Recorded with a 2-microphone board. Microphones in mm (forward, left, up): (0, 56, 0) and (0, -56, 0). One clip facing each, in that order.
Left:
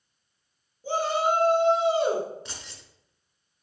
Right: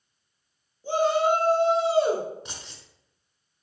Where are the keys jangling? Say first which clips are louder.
Even; 20° right (ahead or behind), 0.9 m.